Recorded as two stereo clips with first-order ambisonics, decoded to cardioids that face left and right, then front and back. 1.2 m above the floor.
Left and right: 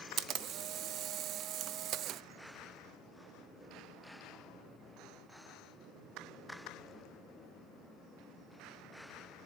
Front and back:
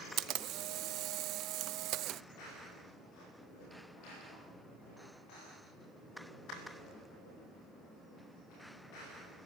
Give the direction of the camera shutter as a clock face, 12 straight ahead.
5 o'clock.